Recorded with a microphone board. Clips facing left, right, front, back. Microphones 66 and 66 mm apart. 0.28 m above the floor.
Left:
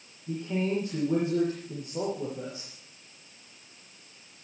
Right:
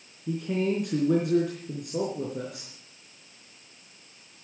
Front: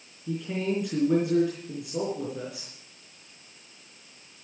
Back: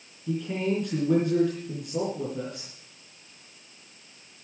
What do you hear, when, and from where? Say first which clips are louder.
0.3 s a man speaking: right 3 dB, back 2 dB; 85° right, 4 m